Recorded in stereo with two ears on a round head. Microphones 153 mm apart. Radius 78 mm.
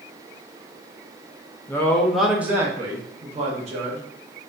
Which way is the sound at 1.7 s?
15° left (ahead or behind).